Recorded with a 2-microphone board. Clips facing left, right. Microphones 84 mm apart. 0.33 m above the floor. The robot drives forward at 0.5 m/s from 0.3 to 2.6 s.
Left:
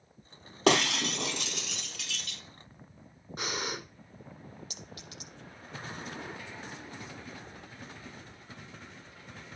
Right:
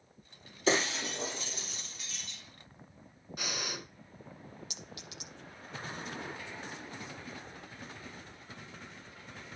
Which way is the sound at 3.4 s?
35° left (ahead or behind).